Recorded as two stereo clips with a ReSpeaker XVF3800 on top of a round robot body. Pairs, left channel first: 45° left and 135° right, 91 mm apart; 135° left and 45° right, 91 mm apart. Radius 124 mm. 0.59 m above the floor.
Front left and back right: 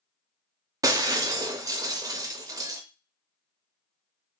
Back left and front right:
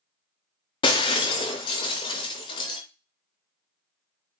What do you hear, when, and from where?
0.8 s breaking glass: 170° left, 0.5 m